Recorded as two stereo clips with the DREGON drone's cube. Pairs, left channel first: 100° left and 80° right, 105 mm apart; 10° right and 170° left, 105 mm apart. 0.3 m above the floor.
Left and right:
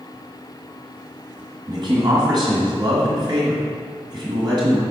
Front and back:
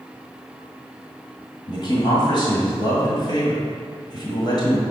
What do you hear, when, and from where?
1.7 s a man speaking: 45° right, 1.6 m